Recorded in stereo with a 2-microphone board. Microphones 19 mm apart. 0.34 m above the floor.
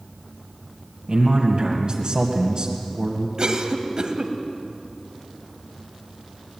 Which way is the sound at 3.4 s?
40° right (ahead or behind).